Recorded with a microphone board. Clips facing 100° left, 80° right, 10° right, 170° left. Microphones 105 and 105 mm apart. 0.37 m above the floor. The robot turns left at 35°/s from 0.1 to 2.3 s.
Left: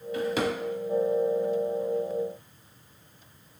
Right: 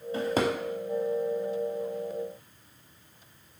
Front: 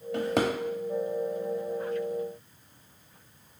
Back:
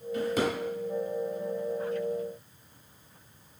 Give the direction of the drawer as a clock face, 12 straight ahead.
1 o'clock.